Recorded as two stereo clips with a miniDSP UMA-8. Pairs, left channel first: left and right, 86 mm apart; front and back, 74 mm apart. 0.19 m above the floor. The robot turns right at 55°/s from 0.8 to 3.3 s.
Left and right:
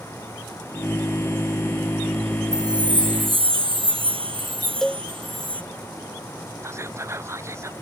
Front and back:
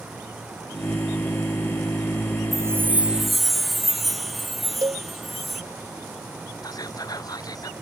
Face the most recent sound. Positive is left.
turn(degrees=-30)